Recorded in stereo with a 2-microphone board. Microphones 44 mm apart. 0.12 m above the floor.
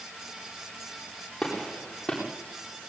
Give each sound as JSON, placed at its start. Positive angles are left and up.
{"t": 1.4, "sound": "a gunshot", "side_deg": 5, "distance_m": 9.5}